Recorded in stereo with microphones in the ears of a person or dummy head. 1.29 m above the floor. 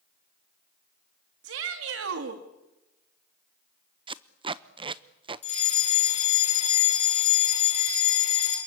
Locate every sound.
1.4 s a shout: 80° right, 1.9 m
4.1 s tape being pulled: 20° right (ahead or behind), 0.6 m
5.4 s a fire alarm: 35° left (ahead or behind), 6 m